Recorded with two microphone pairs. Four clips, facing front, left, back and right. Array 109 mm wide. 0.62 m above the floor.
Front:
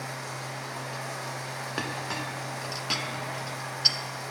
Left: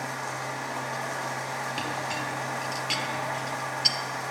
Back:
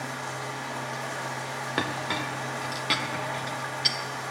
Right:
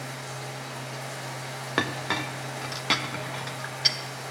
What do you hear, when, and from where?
0.0 s running water: 110° left, 1.5 m
1.8 s a clink: 100° right, 0.7 m